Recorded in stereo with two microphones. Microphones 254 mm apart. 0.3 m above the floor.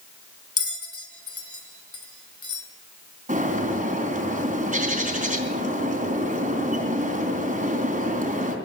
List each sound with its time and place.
0.6 s a bell: 65° left (ahead or behind), 2.5 m
3.3 s a bird: 30° right (ahead or behind), 3 m